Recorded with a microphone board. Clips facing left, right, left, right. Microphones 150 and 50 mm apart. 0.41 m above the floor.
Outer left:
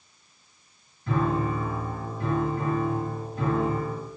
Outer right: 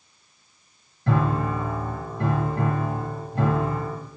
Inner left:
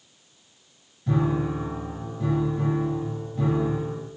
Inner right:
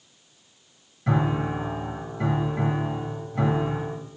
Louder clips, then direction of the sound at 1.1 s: Outer right 2 dB, even; 75° right (ahead or behind).